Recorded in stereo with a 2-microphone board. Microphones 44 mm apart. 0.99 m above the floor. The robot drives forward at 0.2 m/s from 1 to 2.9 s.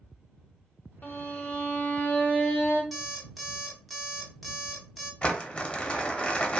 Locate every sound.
1.0 s a violin: 40° left (ahead or behind), 0.7 m; by 2.8 s 30° left (ahead or behind), 0.9 m
2.9 s an alarm clock: centre (ahead or behind), 0.7 m
5.2 s crumpling: 25° left (ahead or behind), 0.5 m